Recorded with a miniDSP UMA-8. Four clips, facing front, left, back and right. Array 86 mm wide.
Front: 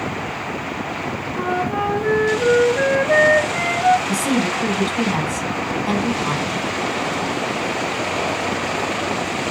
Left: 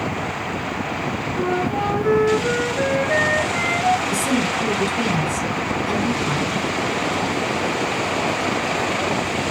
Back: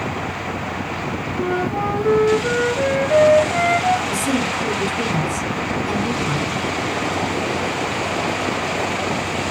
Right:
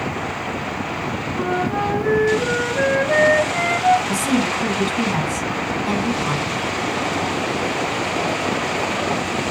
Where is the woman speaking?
20° right, 7.5 m.